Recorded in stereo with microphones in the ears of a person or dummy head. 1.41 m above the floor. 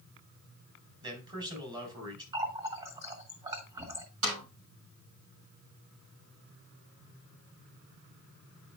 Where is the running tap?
35° right (ahead or behind), 1.5 m.